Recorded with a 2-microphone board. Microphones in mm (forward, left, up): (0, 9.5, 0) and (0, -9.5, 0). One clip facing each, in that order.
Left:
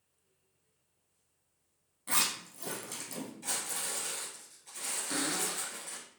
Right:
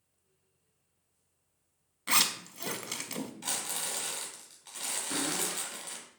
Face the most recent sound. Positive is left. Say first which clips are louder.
# even
turn(degrees=10)  # may be behind; listen again after turning